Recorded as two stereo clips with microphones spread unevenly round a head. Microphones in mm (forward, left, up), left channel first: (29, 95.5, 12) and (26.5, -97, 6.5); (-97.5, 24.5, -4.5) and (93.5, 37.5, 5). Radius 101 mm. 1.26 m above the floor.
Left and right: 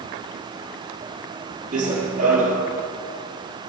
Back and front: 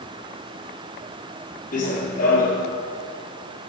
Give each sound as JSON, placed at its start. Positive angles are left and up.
{"t": 1.7, "sound": "running footsteps", "azimuth_deg": -135, "distance_m": 1.9}